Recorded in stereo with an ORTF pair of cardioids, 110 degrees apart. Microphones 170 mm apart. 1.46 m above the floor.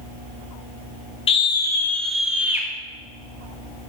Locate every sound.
1.3 s a scream: 35° left, 1.3 m; by 2.7 s 15° right, 1.7 m